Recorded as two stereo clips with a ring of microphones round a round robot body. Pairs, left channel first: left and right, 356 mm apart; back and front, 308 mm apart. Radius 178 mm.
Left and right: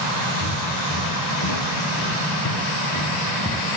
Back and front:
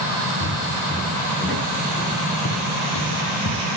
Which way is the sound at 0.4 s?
115° left.